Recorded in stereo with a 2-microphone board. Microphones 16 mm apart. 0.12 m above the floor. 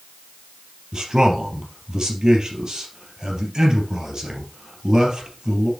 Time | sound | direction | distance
0.9 | a man speaking | 50° right (ahead or behind) | 3 m